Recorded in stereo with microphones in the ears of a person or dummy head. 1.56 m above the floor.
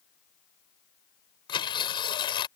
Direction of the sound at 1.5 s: 20° left (ahead or behind).